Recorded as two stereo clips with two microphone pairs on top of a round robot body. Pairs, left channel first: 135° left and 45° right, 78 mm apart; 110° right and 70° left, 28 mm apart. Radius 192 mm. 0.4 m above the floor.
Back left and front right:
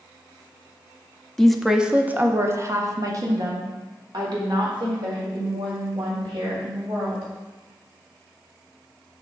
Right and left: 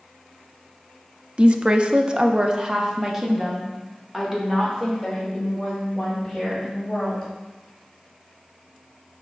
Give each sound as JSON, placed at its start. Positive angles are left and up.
{"t": 1.4, "sound": "a woman speaking", "azimuth_deg": 75, "distance_m": 0.8}